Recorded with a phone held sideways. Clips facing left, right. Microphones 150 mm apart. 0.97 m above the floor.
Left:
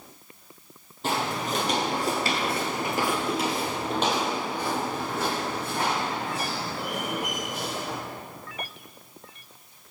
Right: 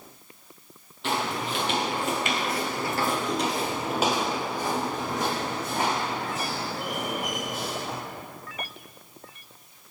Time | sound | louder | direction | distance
1.0 | footsteps | left 1 dB | 40° left (ahead or behind) | 1.7 m